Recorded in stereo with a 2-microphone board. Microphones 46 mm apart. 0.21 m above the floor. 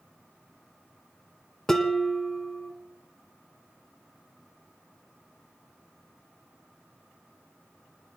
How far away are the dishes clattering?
About 1.2 m.